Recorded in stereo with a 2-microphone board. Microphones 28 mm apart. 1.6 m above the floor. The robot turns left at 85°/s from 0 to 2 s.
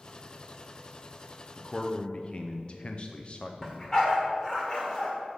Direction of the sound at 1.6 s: Straight behind.